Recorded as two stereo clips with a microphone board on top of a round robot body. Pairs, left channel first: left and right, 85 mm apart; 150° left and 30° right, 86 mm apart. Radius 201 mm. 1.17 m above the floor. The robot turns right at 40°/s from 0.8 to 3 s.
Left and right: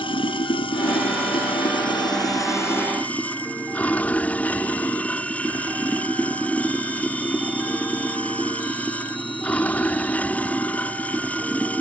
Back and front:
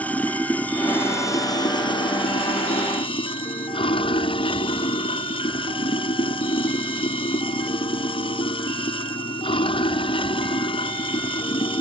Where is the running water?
75° left; by 11.8 s 165° left.